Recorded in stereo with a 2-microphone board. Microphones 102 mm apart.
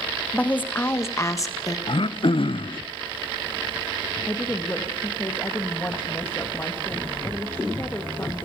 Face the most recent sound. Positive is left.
turn(degrees=20)  # may be behind; listen again after turning